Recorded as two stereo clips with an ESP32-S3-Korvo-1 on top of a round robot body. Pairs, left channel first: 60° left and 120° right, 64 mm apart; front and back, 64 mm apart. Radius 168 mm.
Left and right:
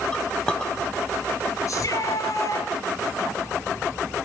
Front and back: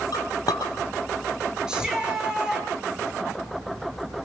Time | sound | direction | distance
0.1 | a clink | 15° right | 3 m
1.7 | a shout | 100° left | 7.5 m